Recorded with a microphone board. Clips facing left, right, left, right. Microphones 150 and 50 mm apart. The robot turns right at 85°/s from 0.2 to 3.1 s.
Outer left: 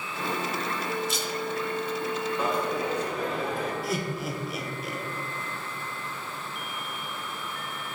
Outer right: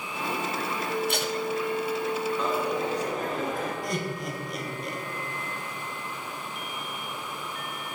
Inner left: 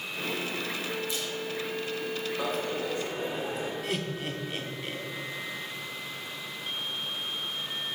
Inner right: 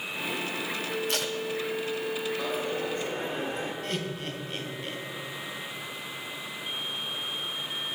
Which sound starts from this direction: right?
Tape being pulled, at 1.1 s.